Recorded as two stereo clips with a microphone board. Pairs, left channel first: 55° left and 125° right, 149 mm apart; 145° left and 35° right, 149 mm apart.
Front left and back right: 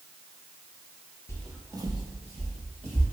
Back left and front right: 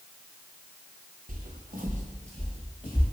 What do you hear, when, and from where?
1.3 s footsteps: 15° right, 0.6 m; by 3.0 s 90° right, 2 m